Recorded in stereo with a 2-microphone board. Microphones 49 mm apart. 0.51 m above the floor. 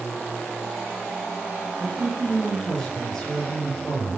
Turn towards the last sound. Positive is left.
turn(degrees=10)  # may be behind; listen again after turning